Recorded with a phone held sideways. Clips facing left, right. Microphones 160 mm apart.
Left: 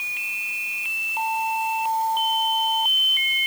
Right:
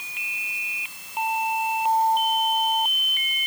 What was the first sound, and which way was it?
Only background noise.